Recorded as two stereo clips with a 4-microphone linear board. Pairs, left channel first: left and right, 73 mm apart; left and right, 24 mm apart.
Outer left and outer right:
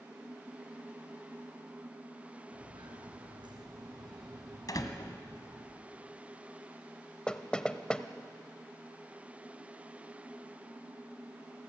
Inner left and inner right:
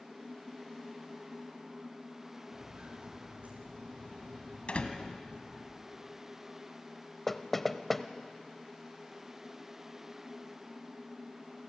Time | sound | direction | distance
2.5 | footsteps | 85° right | 4 m
4.7 | a door slam | 60° left (ahead or behind) | 1.5 m
7.3 | knocking | 10° left (ahead or behind) | 0.7 m